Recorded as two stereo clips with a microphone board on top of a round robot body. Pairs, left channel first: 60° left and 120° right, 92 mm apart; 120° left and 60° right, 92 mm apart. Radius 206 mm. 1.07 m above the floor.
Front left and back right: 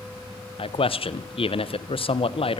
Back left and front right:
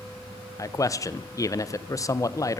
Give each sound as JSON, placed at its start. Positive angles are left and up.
{"t": 0.6, "sound": "a man speaking", "azimuth_deg": 65, "distance_m": 1.3}